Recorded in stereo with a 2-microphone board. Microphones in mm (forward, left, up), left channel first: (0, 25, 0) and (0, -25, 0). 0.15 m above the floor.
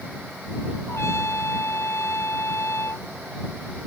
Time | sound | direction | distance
0.9 | a trumpet | 65° left (ahead or behind) | ?